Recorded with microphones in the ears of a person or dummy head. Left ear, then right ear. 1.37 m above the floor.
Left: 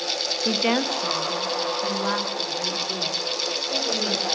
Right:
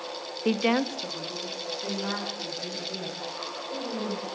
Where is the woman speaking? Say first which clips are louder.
Left 1 dB; 30° right (ahead or behind), 0.5 m; by 4.2 s 40° left (ahead or behind), 4.5 m.